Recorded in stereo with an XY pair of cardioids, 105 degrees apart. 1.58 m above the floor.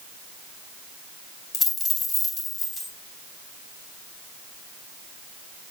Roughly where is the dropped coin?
Ahead left.